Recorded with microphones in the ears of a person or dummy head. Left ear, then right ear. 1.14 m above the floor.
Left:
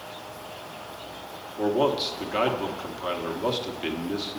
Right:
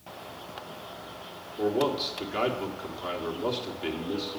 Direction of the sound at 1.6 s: 5° left (ahead or behind).